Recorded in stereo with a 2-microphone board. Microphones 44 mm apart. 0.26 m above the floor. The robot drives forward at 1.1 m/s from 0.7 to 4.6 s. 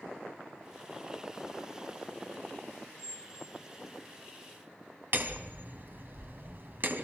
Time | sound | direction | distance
3.0 | a squeak | 15° right (ahead or behind) | 0.9 m
5.1 | hammering | 50° right (ahead or behind) | 1.6 m